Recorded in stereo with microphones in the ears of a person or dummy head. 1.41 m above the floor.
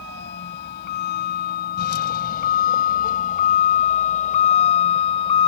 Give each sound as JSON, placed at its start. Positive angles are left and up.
{"t": 0.0, "sound": "a vehicle", "side_deg": 75}